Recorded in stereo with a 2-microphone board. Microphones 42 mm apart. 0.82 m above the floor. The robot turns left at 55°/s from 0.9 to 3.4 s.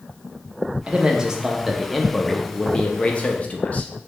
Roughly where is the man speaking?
Behind right.